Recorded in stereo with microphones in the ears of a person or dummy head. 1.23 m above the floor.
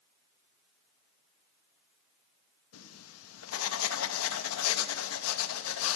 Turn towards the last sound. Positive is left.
turn(degrees=80)